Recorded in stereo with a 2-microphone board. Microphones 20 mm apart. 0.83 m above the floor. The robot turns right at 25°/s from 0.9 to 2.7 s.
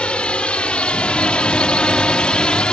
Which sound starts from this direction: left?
A drone, at 0.0 s.